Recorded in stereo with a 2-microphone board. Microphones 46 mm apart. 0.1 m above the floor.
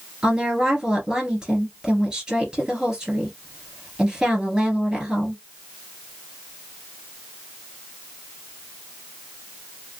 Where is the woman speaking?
15° right (ahead or behind), 1.7 m.